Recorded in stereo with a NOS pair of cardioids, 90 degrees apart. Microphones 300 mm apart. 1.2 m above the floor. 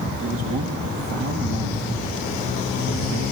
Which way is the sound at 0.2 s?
50° right.